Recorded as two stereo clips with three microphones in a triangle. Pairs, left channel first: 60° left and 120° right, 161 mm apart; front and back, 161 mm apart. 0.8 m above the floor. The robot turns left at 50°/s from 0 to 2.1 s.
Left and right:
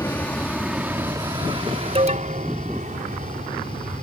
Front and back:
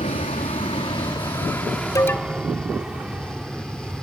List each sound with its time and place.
0.0 s an aircraft: 5° right; by 4.0 s 90° right
1.9 s an alarm: 70° right; by 2.5 s 75° right